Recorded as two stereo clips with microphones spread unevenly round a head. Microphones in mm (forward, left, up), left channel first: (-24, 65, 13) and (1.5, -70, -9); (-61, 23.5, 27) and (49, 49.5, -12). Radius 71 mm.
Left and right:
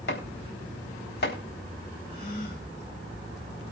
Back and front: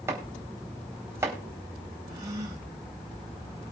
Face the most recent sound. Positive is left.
turn(degrees=75)